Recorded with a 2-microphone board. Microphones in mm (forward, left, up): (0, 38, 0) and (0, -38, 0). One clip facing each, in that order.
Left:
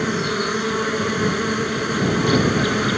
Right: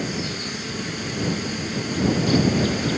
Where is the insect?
60° left (ahead or behind).